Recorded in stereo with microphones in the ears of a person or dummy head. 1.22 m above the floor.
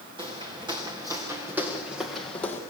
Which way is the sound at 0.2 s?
20° right (ahead or behind).